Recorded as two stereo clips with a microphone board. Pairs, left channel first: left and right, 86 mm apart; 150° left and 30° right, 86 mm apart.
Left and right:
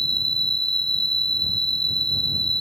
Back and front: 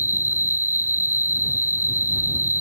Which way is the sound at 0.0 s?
15° left.